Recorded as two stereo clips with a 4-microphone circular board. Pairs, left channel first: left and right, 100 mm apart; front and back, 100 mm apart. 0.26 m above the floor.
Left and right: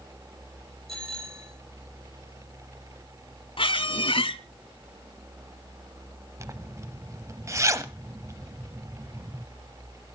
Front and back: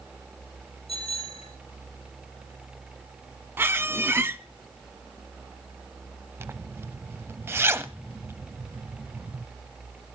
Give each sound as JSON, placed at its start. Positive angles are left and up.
{"t": 0.9, "sound": "a bicycle bell", "azimuth_deg": -5, "distance_m": 6.0}
{"t": 3.6, "sound": "a squeak", "azimuth_deg": 115, "distance_m": 0.6}
{"t": 6.4, "sound": "a zipper", "azimuth_deg": -130, "distance_m": 0.7}